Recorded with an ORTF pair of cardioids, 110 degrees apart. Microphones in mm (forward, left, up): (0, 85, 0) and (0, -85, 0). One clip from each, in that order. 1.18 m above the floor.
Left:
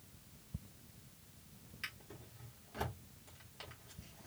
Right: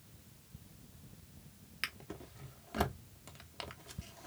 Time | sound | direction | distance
1.8 | a drawer | 60° right | 1.1 m